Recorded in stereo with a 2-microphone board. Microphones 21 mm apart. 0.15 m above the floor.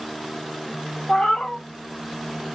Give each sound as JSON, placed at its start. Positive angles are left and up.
{"t": 1.1, "sound": "a cat meowing", "side_deg": 80, "distance_m": 0.6}